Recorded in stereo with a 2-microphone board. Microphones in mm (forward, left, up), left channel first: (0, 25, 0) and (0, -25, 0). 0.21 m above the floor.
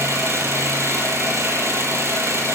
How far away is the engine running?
About 5.5 m.